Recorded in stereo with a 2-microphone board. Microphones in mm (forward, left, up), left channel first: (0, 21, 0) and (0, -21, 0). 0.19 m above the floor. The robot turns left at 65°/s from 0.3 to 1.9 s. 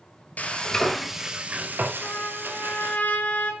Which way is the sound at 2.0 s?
35° left (ahead or behind).